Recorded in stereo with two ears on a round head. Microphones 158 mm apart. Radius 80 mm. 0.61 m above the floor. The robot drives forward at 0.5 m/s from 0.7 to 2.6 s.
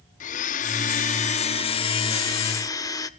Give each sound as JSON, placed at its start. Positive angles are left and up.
{"t": 0.2, "sound": "a blender", "side_deg": 45, "distance_m": 0.5}